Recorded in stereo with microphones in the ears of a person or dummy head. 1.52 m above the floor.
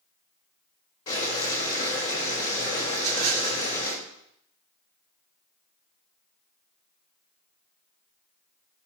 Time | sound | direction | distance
1.1 | boiling | 35° left (ahead or behind) | 3 m
2.9 | a rattle | 35° right (ahead or behind) | 3.5 m